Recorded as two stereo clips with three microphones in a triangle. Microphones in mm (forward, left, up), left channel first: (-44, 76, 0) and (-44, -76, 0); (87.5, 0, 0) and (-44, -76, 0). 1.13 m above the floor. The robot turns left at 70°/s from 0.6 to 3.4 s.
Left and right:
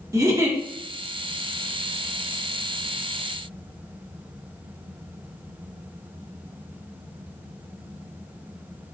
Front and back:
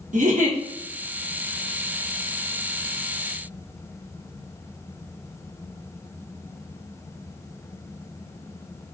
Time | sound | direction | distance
0.1 | a giggle | 155° right | 0.8 m